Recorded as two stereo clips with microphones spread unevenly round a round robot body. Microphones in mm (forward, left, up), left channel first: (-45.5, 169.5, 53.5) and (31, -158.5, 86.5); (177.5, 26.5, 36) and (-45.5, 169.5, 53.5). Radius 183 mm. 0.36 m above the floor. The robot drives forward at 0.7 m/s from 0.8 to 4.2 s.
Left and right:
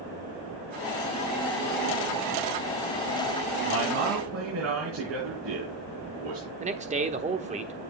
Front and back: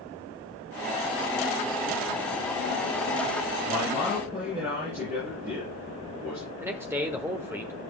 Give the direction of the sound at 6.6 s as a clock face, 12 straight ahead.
4 o'clock.